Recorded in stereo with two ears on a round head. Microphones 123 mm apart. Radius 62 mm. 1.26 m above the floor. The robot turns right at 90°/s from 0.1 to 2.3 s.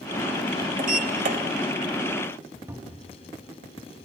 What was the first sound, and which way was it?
A sliding door, 110° right.